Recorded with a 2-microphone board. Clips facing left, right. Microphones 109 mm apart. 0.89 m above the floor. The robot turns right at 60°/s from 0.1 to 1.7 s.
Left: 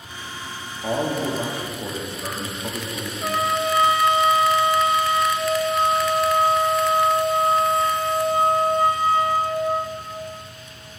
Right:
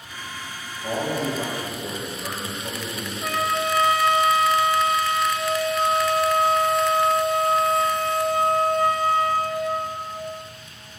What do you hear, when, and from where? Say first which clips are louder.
0.8 s a man speaking: left 2 dB; 55° left, 1.4 m; by 3.1 s 105° left, 1.4 m
3.2 s a trumpet: left 2 dB; 20° left (ahead or behind), 0.5 m